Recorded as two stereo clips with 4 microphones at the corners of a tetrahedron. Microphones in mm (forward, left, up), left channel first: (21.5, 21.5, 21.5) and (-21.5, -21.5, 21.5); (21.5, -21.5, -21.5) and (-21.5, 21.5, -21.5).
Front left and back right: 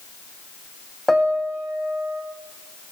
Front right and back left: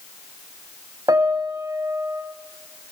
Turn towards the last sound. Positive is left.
turn(degrees=135)